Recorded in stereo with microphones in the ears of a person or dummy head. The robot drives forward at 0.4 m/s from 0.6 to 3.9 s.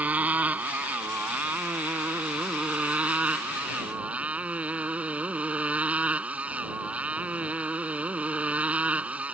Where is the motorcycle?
10° right (ahead or behind); by 9.3 s 5° right (ahead or behind).